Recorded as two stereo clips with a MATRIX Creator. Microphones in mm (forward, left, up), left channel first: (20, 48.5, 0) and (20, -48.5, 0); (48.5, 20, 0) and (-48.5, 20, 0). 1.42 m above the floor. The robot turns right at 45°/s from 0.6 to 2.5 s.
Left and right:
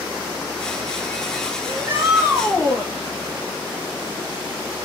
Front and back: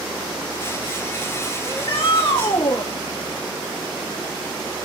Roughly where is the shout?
Ahead right.